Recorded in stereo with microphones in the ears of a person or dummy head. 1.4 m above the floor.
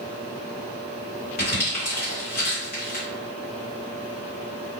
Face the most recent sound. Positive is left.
turn(degrees=55)  # may be behind; listen again after turning